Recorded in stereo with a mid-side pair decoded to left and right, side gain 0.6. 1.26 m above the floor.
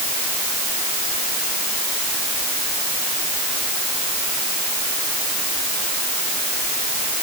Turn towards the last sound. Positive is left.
No sound to turn to.